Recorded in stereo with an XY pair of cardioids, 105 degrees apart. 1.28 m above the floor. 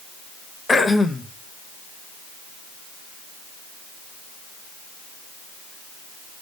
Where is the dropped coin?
I don't hear a dropped coin.